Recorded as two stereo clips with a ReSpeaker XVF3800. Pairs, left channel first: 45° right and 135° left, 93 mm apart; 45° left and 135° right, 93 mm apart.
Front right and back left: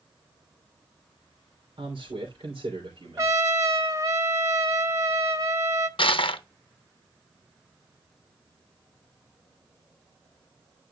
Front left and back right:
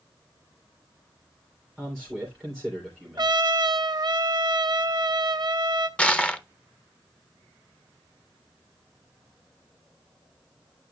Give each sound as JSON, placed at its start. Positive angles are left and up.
{"t": 1.8, "sound": "a man speaking", "azimuth_deg": 130, "distance_m": 3.0}
{"t": 3.2, "sound": "a trumpet", "azimuth_deg": -170, "distance_m": 1.2}
{"t": 6.0, "sound": "crushing", "azimuth_deg": -30, "distance_m": 0.8}